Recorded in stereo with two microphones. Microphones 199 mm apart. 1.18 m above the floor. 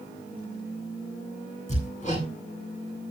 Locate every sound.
1.7 s hammering: 40° left (ahead or behind), 8.5 m